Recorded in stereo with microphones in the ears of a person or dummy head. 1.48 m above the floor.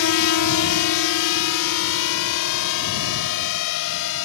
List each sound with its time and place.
0.0 s a drone: 80° left; by 4.3 s 75° left (ahead or behind)